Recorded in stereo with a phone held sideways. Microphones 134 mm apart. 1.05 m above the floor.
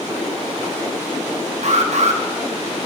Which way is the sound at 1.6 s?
60° right (ahead or behind).